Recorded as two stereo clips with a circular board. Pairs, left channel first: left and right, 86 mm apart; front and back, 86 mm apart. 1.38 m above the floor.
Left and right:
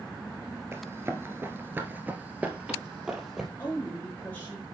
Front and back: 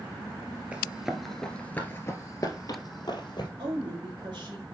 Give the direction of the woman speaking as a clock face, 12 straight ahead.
7 o'clock.